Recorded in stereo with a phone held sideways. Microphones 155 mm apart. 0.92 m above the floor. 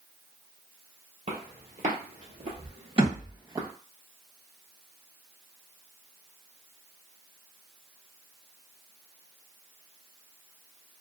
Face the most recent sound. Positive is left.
turn(degrees=-40)  # may be behind; listen again after turning